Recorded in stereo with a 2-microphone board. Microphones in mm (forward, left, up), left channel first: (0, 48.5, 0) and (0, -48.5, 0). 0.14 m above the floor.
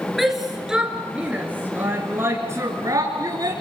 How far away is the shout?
About 2.5 m.